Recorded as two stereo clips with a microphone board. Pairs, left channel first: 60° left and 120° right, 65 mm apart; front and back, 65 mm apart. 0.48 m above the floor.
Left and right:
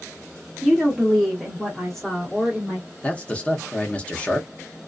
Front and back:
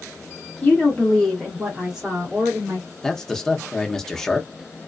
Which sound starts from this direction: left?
A man speaking, at 3.0 s.